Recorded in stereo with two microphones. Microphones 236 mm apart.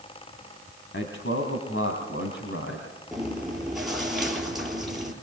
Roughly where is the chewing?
Centre.